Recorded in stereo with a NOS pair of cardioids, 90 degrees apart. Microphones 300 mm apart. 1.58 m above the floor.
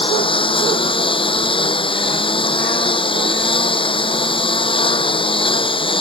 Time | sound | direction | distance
0.0 | a lawn mower | 15° left | ?